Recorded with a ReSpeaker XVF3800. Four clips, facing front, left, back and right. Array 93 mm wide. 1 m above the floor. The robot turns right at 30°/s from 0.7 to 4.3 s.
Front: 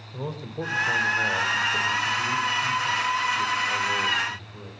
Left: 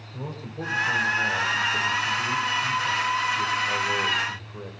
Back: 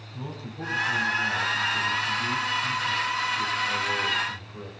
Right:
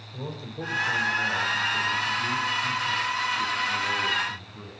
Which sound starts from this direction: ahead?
A man speaking, at 0.1 s.